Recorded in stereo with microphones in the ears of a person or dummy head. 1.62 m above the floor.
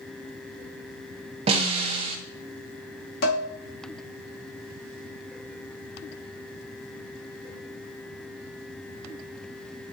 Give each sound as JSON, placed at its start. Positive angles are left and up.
{"t": 1.5, "sound": "a snare drum", "side_deg": -40, "distance_m": 1.0}
{"t": 3.2, "sound": "dishes clattering", "side_deg": 55, "distance_m": 1.1}